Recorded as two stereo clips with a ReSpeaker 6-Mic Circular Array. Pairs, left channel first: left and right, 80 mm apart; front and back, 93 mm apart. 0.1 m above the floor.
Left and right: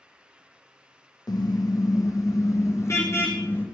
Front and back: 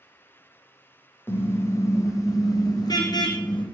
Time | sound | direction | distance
1.3 | a car horn | 65° left | 3 m